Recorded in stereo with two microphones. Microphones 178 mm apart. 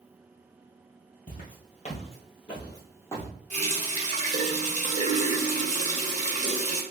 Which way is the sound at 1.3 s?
50° left (ahead or behind).